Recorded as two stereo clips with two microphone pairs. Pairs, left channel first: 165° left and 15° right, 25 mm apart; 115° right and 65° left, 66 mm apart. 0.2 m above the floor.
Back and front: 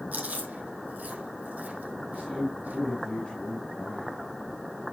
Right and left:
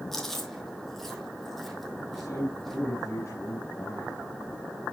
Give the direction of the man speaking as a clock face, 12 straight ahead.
5 o'clock.